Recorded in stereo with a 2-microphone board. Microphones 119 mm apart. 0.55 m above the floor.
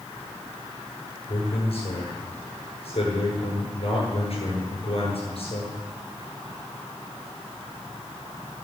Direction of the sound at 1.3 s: 60° left (ahead or behind).